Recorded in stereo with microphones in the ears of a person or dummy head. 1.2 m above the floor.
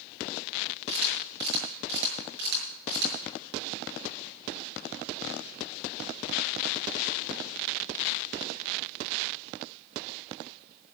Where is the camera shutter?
60° right (ahead or behind), 7 m.